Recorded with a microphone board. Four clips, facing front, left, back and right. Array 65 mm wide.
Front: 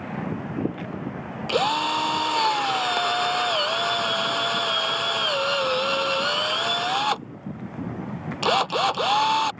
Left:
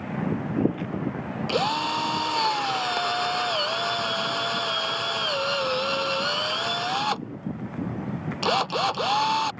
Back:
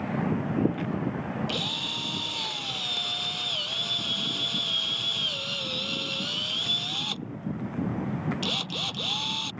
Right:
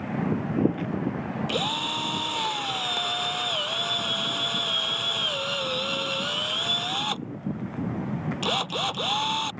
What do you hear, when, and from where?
1.5 s a drill: 20° left